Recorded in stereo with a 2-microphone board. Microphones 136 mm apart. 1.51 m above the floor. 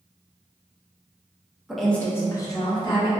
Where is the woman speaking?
5° right (ahead or behind), 0.5 m; by 3.1 s 40° left (ahead or behind), 1.2 m.